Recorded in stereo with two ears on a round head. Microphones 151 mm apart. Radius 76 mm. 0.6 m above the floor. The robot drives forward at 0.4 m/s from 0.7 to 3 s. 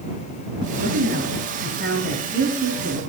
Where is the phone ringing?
No phone ringing in this recording.